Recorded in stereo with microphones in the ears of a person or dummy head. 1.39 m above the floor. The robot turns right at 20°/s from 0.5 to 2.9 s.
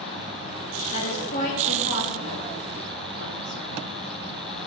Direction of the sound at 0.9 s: 35° left (ahead or behind).